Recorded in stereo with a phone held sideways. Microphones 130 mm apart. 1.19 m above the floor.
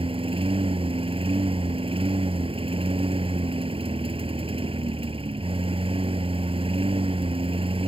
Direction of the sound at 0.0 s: 45° right (ahead or behind).